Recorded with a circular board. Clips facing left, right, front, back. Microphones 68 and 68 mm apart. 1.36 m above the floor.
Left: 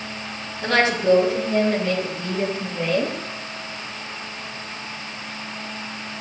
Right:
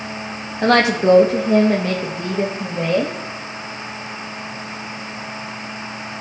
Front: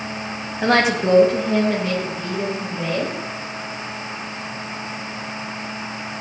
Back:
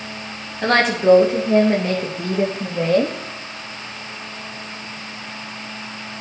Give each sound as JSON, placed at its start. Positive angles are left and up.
{"t": 0.6, "sound": "a woman speaking", "azimuth_deg": -80, "distance_m": 1.9}